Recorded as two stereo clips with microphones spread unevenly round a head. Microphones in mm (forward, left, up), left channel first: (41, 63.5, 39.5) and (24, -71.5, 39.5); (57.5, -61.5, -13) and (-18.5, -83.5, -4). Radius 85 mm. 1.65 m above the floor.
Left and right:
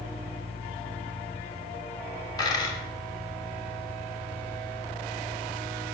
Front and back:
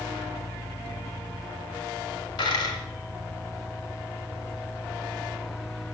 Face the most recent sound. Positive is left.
turn(degrees=25)